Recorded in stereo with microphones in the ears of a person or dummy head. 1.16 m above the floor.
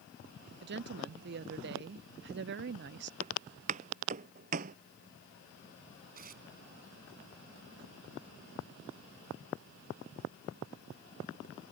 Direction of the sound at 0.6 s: 55° right (ahead or behind).